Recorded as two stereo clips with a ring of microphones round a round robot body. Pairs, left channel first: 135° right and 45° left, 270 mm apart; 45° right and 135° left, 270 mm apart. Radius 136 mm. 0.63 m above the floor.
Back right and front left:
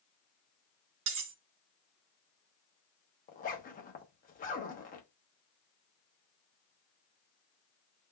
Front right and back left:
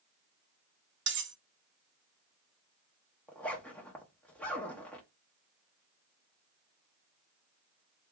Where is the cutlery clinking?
85° left, 0.8 m.